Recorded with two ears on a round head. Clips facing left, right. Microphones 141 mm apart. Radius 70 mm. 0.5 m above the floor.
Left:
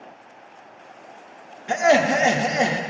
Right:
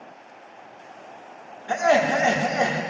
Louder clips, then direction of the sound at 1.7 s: Left 2 dB; 20° left (ahead or behind).